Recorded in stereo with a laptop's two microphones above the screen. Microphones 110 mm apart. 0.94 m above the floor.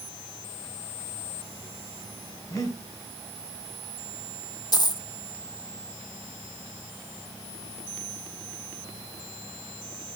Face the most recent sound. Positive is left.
turn(degrees=40)  # may be behind; listen again after turning